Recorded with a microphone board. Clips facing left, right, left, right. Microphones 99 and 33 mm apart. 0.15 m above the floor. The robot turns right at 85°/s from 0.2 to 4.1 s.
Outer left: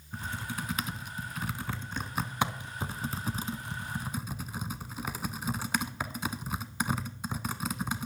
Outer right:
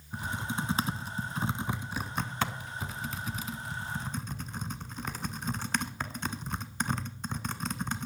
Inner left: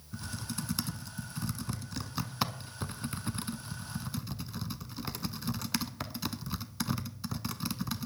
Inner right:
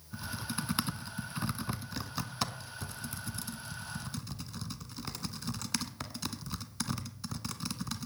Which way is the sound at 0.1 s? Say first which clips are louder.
Outer right 3 dB, inner right 2 dB; 10° right (ahead or behind).